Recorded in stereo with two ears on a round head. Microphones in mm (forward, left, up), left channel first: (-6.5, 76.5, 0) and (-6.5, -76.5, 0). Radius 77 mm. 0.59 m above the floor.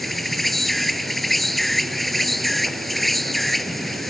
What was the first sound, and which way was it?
An insect, centre (ahead or behind).